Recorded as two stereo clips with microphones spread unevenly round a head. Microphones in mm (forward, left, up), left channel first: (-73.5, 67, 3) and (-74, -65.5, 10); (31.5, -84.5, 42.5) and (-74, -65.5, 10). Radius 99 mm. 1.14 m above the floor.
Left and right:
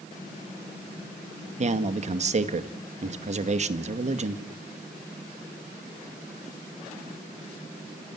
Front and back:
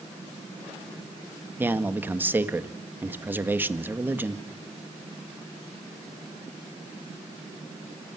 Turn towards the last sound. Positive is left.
turn(degrees=-125)